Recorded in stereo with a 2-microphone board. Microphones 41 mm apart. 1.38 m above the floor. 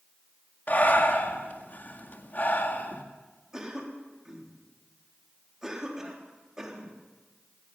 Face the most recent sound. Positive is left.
turn(degrees=-15)  # may be behind; listen again after turning